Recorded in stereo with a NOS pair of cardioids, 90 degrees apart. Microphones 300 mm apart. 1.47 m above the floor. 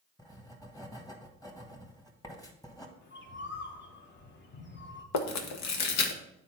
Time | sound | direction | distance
0.2 | writing | 10° left | 1.6 m
3.0 | a bird | 35° left | 1.3 m
5.1 | chewing | 65° left | 1.2 m